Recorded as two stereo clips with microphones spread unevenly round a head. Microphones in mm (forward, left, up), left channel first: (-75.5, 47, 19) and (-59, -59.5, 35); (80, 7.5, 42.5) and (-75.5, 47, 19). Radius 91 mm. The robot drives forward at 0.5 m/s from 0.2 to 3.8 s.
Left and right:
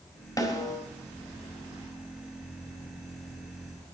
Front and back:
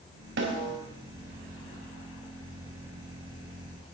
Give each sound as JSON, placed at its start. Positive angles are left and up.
{"t": 0.4, "sound": "a snare drum", "azimuth_deg": 155, "distance_m": 4.5}